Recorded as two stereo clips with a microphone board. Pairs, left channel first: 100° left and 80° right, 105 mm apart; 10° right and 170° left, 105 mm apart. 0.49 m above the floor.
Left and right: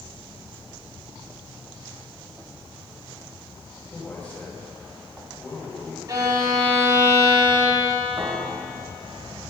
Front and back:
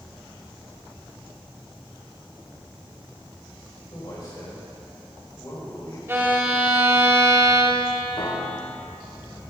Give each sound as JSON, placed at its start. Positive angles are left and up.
{"t": 3.9, "sound": "a man speaking", "azimuth_deg": 30, "distance_m": 2.5}
{"t": 6.1, "sound": "a violin", "azimuth_deg": -125, "distance_m": 2.0}
{"t": 8.2, "sound": "a piano", "azimuth_deg": -30, "distance_m": 1.7}